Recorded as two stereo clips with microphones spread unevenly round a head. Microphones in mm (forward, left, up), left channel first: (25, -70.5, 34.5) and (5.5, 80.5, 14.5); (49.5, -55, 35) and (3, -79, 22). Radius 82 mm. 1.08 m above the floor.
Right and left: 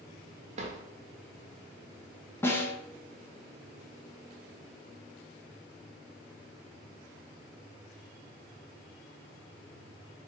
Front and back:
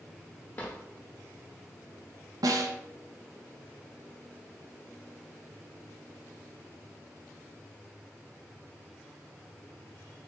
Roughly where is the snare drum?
Behind.